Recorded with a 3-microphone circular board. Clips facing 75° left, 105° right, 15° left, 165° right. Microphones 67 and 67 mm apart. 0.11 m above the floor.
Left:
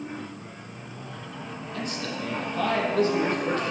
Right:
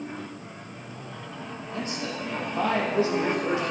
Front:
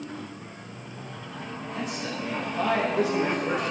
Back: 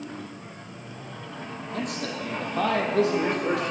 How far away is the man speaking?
About 3.5 m.